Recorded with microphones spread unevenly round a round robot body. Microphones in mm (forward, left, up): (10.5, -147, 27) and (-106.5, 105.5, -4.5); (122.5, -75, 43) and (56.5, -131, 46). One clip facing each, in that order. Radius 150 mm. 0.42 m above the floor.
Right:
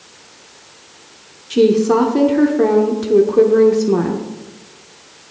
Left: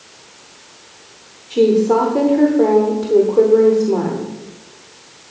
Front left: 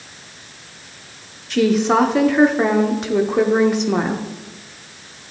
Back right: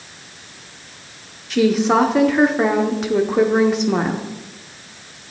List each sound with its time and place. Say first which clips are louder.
1.5 s a woman speaking: right 1 dB, even; 50° right, 0.9 m